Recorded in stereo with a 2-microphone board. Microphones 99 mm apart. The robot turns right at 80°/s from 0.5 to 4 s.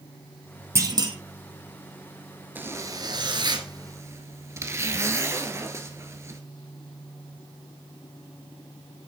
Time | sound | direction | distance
0.8 | a clunk | 150° right | 2 m
2.5 | a zipper | 155° right | 1.5 m